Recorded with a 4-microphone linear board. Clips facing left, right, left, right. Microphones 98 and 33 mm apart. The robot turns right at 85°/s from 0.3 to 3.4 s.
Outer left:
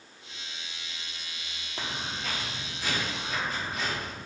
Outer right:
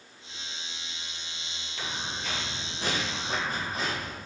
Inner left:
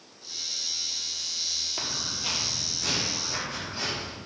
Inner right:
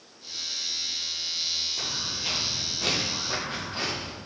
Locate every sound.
1.8 s footsteps: 40° left (ahead or behind), 1.8 m; by 4.2 s 35° right (ahead or behind), 3 m